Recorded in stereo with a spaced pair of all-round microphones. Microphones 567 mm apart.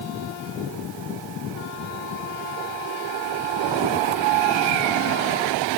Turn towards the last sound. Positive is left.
No sound to turn to.